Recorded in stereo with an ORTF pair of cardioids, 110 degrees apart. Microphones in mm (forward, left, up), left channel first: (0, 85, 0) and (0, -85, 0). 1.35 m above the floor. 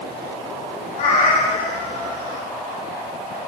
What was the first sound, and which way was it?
A cat meowing, 45° left.